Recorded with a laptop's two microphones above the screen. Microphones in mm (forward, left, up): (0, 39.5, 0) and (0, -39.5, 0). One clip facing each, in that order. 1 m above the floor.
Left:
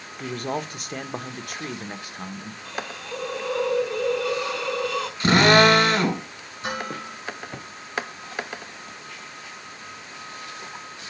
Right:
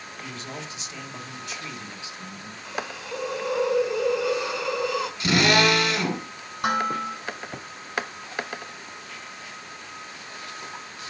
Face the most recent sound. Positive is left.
turn(degrees=-60)  # may be behind; listen again after turning